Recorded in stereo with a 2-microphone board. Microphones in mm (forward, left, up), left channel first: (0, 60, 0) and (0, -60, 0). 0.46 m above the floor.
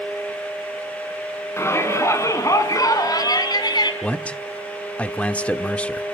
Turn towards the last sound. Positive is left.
turn(degrees=10)  # may be behind; listen again after turning